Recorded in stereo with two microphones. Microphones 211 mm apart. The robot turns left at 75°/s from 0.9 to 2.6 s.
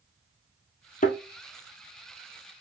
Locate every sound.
1.0 s a thud: 40° left (ahead or behind), 1.0 m; by 1.2 s 30° left (ahead or behind), 1.0 m